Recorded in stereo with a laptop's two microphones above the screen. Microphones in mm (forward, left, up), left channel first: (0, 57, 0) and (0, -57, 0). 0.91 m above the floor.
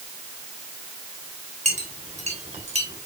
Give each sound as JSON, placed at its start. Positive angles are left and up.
{"t": 1.6, "sound": "a clink", "side_deg": -85, "distance_m": 3.0}